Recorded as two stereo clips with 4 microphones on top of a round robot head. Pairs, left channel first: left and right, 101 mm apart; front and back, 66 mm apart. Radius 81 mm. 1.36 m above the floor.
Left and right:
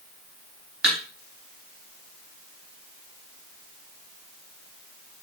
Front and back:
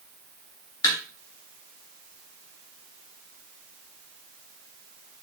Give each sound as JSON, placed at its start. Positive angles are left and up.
{"t": 0.8, "sound": "a thud", "azimuth_deg": -10, "distance_m": 1.5}